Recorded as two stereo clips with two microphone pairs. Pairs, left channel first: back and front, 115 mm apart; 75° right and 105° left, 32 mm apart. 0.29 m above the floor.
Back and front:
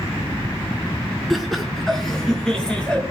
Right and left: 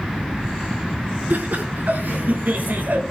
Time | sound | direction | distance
1.3 | laughter | 90° left | 4.5 m